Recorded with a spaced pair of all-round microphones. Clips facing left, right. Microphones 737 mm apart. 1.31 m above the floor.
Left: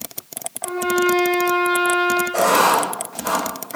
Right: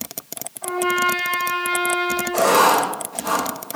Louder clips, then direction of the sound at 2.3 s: Right 4 dB; 5° left (ahead or behind).